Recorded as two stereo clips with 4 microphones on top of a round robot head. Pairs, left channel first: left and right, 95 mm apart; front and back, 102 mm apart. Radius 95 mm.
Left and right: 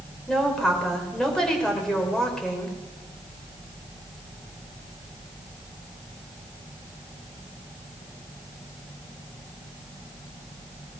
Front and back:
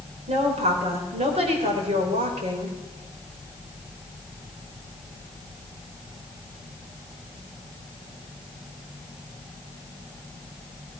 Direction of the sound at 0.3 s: 175° left.